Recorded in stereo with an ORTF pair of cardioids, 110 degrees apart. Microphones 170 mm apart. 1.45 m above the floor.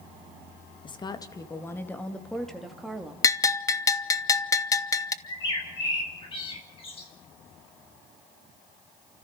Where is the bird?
35° left, 6.5 m.